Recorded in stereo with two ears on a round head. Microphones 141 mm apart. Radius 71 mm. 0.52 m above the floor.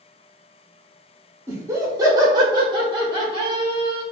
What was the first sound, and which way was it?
Laughter, 20° right (ahead or behind).